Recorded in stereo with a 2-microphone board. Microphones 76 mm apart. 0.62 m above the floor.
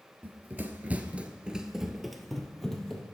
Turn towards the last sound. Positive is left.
turn(degrees=10)  # may be behind; listen again after turning